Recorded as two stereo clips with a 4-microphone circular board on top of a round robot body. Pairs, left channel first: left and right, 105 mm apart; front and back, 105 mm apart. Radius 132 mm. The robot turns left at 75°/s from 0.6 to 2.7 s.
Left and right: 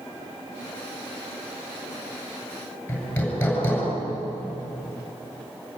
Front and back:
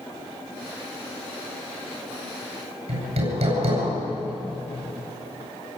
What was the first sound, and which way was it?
Hammering, 165° left.